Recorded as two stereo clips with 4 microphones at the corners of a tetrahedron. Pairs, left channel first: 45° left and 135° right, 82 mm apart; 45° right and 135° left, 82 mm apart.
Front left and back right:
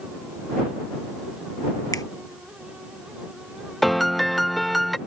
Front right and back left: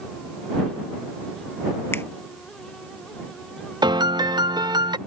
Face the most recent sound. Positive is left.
turn(degrees=135)